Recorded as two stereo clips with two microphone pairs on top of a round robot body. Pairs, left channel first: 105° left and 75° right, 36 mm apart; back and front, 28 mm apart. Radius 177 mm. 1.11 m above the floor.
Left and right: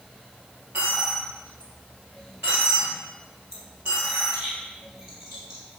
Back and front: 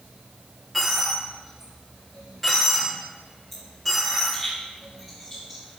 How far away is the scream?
No scream in this recording.